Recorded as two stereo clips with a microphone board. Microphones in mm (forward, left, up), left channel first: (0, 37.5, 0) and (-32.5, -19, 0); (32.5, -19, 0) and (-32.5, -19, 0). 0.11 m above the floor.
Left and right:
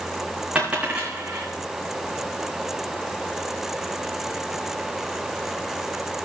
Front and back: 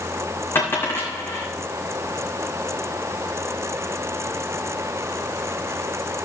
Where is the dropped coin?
50° right, 4.5 m.